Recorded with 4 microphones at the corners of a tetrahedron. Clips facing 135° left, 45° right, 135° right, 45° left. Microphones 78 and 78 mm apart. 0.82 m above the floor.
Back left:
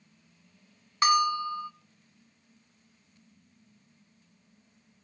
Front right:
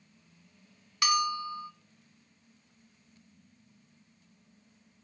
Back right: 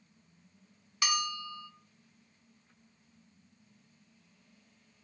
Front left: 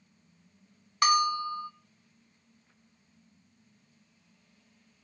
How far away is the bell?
About 0.6 m.